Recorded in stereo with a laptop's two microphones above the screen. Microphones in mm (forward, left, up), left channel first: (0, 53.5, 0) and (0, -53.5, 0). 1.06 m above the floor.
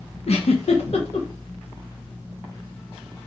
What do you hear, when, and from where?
0.3 s a giggle: 75° left (ahead or behind), 0.8 m